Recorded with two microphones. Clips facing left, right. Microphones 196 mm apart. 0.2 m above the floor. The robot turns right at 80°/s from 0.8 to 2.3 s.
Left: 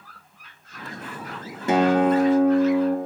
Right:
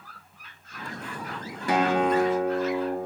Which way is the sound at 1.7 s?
25° left.